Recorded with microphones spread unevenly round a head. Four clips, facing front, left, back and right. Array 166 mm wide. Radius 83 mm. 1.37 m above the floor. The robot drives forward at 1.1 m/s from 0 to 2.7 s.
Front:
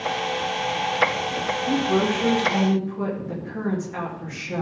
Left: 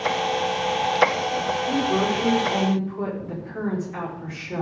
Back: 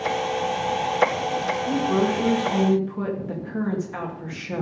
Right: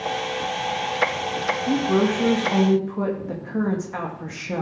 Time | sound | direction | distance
1.7 | a woman speaking | 80° right | 2 m